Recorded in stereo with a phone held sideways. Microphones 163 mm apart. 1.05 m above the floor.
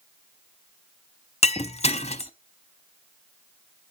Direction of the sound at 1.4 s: 40° left (ahead or behind).